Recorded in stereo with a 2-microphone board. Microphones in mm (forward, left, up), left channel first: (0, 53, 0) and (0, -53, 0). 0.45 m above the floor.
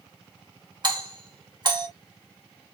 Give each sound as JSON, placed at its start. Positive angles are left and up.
{"t": 0.8, "sound": "a doorbell", "side_deg": -45, "distance_m": 2.5}